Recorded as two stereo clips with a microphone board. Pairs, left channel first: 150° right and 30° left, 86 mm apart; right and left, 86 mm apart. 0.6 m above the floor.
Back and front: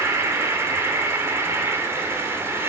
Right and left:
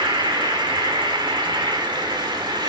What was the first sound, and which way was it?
An insect, 85° left.